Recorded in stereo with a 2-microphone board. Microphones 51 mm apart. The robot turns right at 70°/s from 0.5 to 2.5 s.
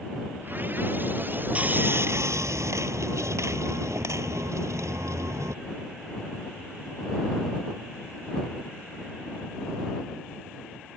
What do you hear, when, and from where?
1.6 s sawing: 155° right; by 5.5 s 85° right